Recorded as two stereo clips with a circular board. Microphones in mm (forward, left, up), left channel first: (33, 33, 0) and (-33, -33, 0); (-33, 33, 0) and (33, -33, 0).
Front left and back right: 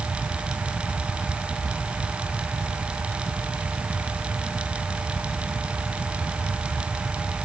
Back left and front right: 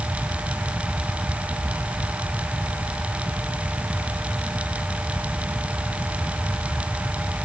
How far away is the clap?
I don't hear a clap.